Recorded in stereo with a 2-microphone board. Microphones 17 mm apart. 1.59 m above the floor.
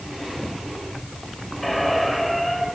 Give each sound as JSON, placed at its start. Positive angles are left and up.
{"t": 1.6, "sound": "a squeak", "side_deg": 10, "distance_m": 6.0}